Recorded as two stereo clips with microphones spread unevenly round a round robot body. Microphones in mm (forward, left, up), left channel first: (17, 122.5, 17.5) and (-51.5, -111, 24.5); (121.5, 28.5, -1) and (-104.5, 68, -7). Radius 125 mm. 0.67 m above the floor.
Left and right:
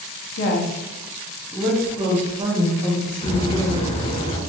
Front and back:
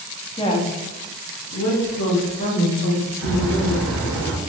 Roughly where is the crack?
Behind left.